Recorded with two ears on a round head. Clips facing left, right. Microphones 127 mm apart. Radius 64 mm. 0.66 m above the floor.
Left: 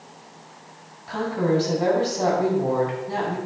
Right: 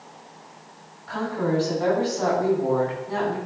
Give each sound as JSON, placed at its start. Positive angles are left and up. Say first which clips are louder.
{"t": 1.1, "sound": "a woman speaking", "louder": "left 2 dB", "side_deg": 20, "distance_m": 5.5}